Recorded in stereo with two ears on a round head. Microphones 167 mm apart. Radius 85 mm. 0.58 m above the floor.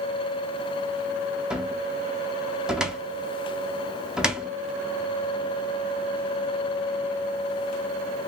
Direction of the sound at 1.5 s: 5° right (ahead or behind).